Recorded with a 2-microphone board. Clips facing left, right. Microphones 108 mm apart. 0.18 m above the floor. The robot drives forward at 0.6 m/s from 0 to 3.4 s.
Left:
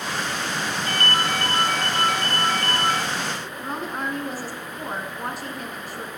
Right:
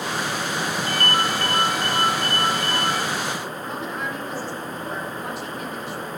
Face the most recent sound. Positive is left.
turn(degrees=45)  # may be behind; listen again after turning